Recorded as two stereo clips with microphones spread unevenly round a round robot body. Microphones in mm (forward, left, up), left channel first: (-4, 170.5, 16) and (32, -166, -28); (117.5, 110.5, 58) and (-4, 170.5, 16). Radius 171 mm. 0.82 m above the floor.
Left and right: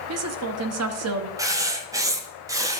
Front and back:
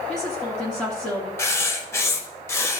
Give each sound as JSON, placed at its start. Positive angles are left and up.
{"t": 0.1, "sound": "a woman speaking", "azimuth_deg": -120, "distance_m": 0.7}
{"t": 1.4, "sound": "writing", "azimuth_deg": 0, "distance_m": 0.7}